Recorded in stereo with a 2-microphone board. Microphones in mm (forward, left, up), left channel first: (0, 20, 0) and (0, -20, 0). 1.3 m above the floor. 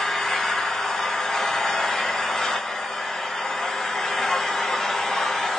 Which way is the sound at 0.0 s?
10° left (ahead or behind).